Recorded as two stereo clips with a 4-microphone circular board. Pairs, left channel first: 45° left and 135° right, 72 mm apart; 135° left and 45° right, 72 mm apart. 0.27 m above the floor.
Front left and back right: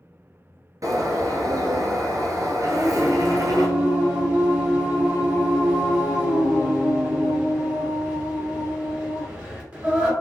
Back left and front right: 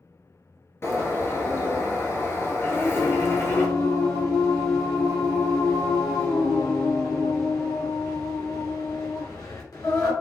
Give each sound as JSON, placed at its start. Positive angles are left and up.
{"t": 0.8, "sound": "a bird", "azimuth_deg": -170, "distance_m": 1.1}
{"t": 2.7, "sound": "singing", "azimuth_deg": 150, "distance_m": 2.0}